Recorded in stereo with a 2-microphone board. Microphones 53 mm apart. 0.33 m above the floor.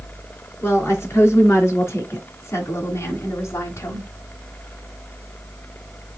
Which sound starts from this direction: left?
A woman speaking, at 0.6 s.